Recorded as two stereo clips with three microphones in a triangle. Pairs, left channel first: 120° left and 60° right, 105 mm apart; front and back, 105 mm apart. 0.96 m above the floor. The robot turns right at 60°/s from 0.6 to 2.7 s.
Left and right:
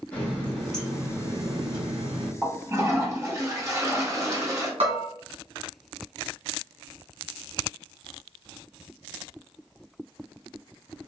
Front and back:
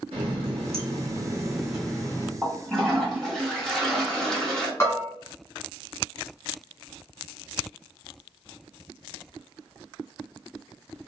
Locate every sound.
0.1 s a running tap: 165° right, 1.3 m; by 2.3 s 60° right, 1.3 m
2.4 s a toilet flushing: 95° right, 0.9 m; by 4.7 s 80° right, 0.9 m
4.8 s a bell: 60° right, 1.7 m